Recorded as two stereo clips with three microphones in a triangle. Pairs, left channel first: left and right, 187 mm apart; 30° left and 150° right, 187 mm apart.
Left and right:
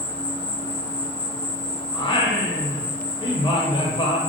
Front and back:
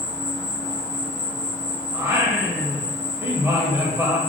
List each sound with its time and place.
0.0 s an insect: 140° left, 0.8 m
1.9 s singing: 140° left, 0.6 m